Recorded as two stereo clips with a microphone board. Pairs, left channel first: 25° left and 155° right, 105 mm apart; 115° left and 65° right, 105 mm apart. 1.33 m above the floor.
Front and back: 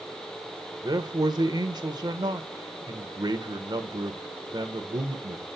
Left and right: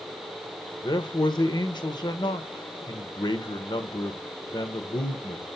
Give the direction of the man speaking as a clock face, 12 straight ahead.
7 o'clock.